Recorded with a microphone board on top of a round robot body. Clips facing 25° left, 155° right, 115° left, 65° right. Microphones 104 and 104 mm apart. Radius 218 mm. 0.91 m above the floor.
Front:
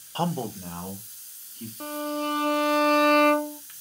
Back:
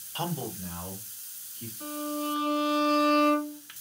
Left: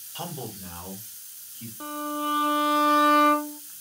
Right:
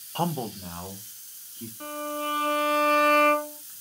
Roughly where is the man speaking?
Ahead right.